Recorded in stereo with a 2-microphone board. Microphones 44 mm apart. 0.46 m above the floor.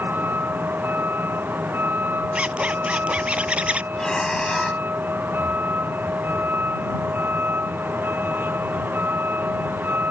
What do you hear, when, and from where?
0.0 s a vehicle: 45° right (ahead or behind)
2.4 s a zipper: 30° right (ahead or behind)
3.9 s breathing: 15° left (ahead or behind)